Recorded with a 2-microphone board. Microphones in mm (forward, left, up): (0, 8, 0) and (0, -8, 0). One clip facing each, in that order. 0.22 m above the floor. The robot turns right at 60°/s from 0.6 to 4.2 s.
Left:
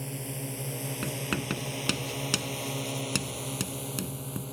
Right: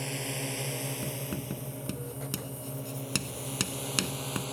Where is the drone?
25° right (ahead or behind); by 4.5 s 35° right (ahead or behind).